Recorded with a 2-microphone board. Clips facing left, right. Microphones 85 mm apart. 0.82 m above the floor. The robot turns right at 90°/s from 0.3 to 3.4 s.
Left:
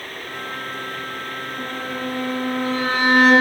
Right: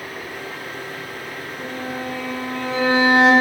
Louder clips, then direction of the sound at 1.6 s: Even; 85° left.